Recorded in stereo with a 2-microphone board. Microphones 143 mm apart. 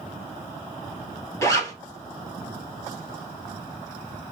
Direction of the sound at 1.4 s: 20° left (ahead or behind).